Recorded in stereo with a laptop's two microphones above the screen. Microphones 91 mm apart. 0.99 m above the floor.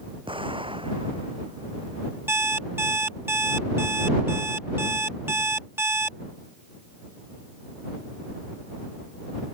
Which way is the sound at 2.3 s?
25° right (ahead or behind).